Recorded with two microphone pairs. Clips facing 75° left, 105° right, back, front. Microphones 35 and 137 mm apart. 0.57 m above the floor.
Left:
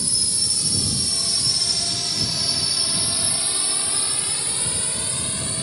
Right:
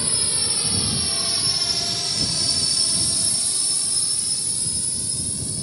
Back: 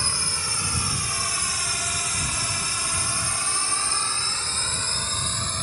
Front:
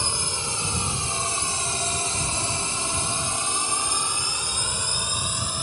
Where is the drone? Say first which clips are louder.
Even, front 2 dB; 65° right; by 5.6 s 80° left.